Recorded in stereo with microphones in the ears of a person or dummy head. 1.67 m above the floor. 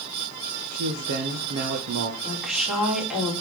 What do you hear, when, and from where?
0.7 s a man speaking: 50° right (ahead or behind), 1.1 m
2.2 s a woman speaking: centre (ahead or behind), 3.5 m